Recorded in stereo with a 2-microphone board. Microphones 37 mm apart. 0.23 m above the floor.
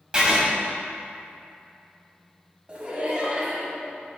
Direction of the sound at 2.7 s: 30° right (ahead or behind).